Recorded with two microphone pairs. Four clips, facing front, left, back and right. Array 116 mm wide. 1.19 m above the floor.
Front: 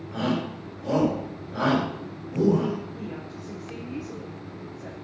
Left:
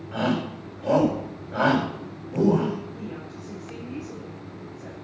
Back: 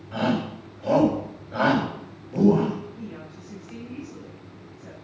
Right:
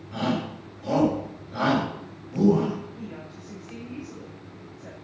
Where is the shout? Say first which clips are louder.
Left 2 dB, back 2 dB; 120° left, 7.5 m.